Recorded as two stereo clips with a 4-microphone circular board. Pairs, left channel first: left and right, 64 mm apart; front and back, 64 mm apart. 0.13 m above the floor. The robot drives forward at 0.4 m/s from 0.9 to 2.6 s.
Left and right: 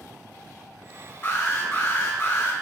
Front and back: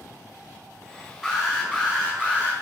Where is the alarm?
95° left, 1.6 m; by 2.5 s 125° left, 1.7 m.